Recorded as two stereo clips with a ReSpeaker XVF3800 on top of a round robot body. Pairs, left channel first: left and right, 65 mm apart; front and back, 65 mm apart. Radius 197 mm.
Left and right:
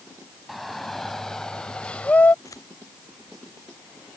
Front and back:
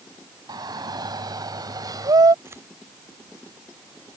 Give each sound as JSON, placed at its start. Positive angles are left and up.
{"t": 0.5, "sound": "a shout", "azimuth_deg": 180}
{"t": 2.5, "sound": "scissors", "azimuth_deg": 125}